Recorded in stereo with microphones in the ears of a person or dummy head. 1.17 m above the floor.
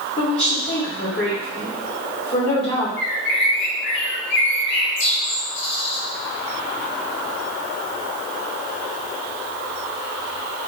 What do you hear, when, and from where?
0.2 s a woman speaking: 25° left (ahead or behind), 2.5 m
3.0 s a bird: 55° left (ahead or behind), 1.0 m